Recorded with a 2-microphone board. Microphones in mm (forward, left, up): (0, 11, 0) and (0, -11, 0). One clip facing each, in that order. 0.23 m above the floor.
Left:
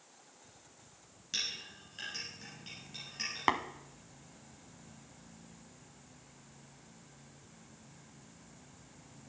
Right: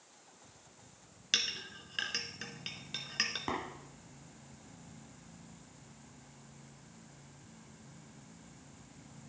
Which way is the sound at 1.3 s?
50° right (ahead or behind).